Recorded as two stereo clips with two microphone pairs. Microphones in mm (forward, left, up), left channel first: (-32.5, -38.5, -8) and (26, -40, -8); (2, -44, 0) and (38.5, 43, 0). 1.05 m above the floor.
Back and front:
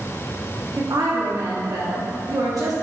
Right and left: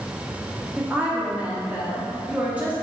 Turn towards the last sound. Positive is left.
turn(degrees=-5)